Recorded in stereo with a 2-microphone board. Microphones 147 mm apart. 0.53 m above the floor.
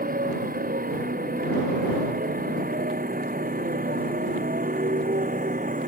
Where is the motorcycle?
85° right; by 5.9 s 70° right (ahead or behind).